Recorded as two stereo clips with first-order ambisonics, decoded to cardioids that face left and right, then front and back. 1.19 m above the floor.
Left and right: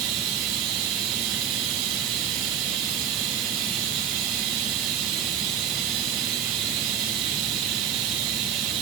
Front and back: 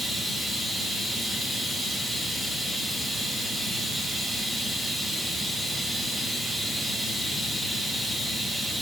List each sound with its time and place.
0.0 s running water: 95° right, 1.5 m